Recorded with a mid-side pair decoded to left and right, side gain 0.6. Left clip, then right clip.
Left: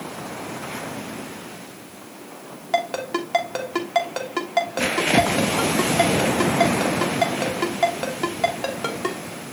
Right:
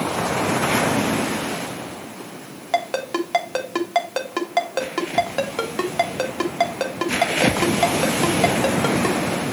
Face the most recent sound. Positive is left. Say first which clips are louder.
# right 1 dB
turn(degrees=-15)